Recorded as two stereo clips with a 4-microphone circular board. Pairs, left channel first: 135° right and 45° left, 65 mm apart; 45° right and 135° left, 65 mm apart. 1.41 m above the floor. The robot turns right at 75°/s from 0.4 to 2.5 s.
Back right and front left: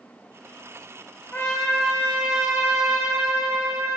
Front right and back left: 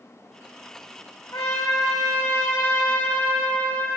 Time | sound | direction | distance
1.3 | a trumpet | 70° right | 3 m